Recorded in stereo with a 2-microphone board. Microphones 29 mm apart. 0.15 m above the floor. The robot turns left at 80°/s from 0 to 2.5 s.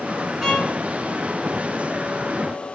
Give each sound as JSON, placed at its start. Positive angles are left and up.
{"t": 0.4, "sound": "a violin", "side_deg": -5, "distance_m": 1.8}